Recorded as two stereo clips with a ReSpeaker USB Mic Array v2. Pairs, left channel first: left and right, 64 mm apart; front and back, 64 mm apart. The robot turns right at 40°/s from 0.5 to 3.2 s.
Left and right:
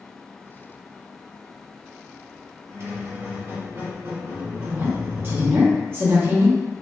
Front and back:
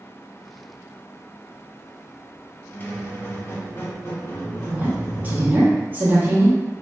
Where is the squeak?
65° right, 1.0 m; by 5.7 s 45° right, 1.0 m.